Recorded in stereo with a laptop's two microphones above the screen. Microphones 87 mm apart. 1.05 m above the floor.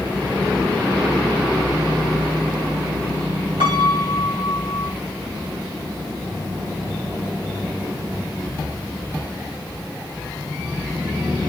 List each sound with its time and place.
3.6 s a piano: 60° right (ahead or behind), 3 m